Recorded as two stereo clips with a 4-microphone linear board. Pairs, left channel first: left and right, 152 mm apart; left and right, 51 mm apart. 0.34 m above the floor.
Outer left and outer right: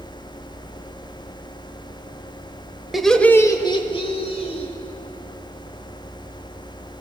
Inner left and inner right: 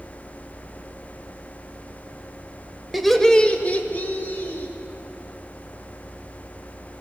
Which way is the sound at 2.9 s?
Centre (ahead or behind).